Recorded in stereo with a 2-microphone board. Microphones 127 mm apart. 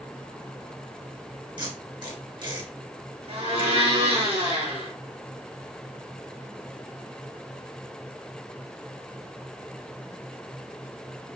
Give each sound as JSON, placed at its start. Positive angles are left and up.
{"t": 1.6, "sound": "tape being pulled", "side_deg": -40, "distance_m": 3.0}
{"t": 3.3, "sound": "a blender", "side_deg": -50, "distance_m": 3.0}